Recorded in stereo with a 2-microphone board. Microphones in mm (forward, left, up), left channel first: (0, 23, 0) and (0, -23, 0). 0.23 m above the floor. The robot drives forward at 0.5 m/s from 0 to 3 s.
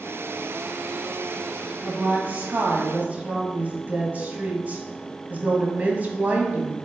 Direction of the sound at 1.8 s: 40° right (ahead or behind).